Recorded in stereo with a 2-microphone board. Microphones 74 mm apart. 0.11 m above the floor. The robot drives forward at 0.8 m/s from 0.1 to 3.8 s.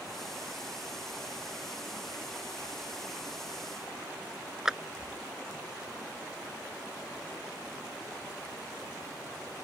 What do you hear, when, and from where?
4.7 s a clap: 5° right (ahead or behind)